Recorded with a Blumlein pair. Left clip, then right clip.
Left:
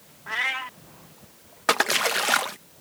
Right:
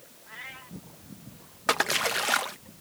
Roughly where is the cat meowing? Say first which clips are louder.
Left 16 dB; ahead left.